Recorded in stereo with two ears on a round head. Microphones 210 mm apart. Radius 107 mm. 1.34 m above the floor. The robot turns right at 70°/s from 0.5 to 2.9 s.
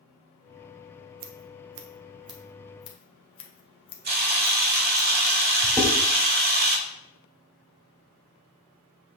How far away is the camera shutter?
About 1.3 m.